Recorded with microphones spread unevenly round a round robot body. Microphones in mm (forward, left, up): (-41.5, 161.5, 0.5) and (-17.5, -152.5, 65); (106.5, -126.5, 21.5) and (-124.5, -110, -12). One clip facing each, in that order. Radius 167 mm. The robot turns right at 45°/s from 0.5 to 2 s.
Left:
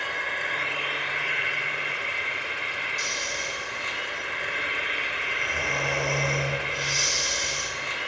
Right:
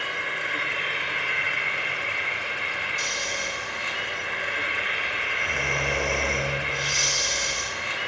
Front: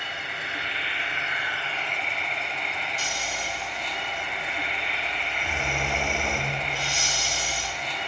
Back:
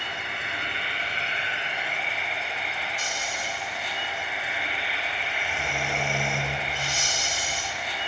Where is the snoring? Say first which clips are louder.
Right 2 dB, even; 30° right, 2.0 m.